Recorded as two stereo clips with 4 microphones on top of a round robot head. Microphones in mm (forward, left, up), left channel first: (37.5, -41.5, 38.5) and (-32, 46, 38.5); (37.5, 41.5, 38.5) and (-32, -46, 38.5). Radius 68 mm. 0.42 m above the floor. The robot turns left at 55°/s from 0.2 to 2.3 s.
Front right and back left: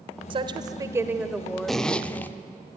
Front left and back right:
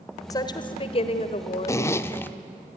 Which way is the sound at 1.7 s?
35° left.